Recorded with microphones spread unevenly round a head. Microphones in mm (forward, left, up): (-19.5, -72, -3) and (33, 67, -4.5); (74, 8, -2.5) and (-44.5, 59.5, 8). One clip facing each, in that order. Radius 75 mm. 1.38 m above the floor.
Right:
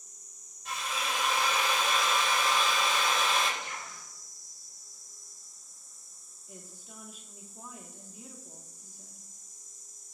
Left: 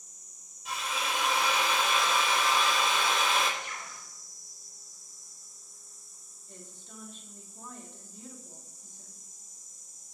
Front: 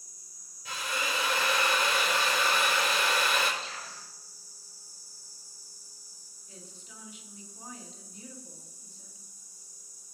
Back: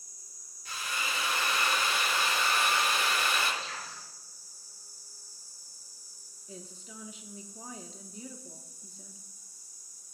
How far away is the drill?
About 4.5 m.